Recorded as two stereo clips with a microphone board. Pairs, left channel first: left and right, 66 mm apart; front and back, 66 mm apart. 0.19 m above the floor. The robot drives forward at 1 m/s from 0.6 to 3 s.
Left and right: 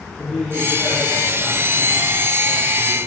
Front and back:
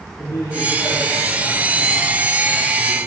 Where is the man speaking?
15° left, 9.5 m; by 3.0 s 20° left, 7.5 m.